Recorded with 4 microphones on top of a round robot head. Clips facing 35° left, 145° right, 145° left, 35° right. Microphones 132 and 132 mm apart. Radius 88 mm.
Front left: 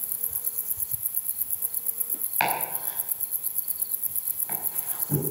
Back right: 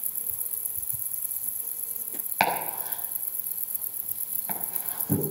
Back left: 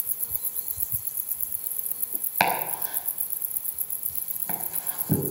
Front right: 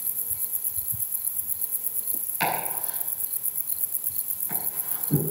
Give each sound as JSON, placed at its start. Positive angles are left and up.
{"t": 2.4, "sound": "chopping", "azimuth_deg": 165, "distance_m": 5.0}